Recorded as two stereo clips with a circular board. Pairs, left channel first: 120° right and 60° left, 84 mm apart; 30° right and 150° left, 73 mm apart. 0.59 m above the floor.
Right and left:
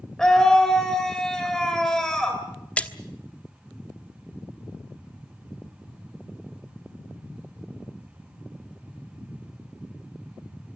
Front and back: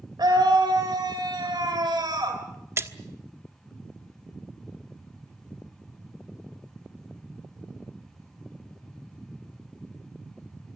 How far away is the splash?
About 1.2 m.